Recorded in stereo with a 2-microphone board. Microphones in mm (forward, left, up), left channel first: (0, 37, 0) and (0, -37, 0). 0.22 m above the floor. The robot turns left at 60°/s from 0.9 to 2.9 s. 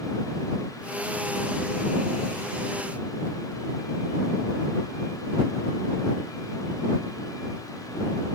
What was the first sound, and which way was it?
Only background noise.